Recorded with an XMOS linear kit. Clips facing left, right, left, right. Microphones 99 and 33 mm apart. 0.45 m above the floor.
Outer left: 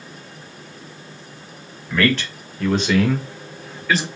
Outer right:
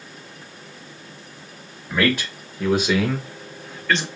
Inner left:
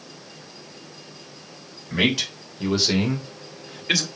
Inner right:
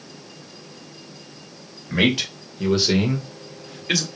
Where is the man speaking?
15° right (ahead or behind), 2 m; by 4.1 s 5° left (ahead or behind), 1.4 m.